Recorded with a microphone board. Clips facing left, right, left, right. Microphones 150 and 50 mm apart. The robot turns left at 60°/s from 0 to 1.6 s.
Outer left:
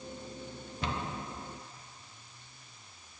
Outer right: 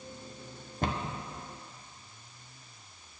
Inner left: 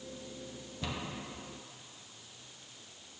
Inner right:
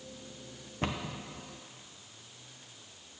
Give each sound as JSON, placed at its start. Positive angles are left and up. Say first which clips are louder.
{"t": 0.8, "sound": "a cupboard door", "louder": "outer right 3 dB, inner right 4 dB", "side_deg": -45, "distance_m": 0.8}